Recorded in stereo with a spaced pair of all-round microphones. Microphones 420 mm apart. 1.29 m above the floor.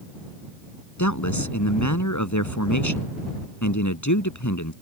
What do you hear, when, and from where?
1.0 s a man speaking: 45° left (ahead or behind)